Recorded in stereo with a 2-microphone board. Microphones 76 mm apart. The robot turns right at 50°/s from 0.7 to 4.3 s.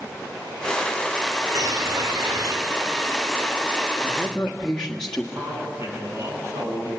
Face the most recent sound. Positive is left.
turn(degrees=-35)  # may be behind; listen again after turning